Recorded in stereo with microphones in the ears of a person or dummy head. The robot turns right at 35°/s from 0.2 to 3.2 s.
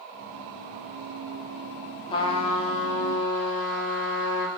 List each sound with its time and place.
2.1 s a trumpet: 40° left, 1.2 m; by 4.5 s 80° left, 1.2 m